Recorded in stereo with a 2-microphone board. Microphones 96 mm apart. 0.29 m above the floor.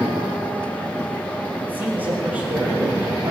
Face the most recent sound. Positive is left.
turn(degrees=-15)  # may be behind; listen again after turning